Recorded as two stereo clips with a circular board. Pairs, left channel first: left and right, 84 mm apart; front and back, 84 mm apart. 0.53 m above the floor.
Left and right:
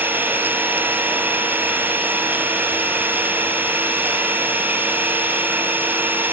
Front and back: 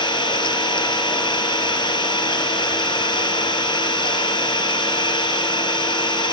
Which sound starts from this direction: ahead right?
An engine running, at 0.0 s.